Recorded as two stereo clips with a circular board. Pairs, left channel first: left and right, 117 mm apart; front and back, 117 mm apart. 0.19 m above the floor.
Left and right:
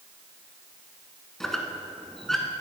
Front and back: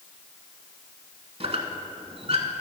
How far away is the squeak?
About 0.8 m.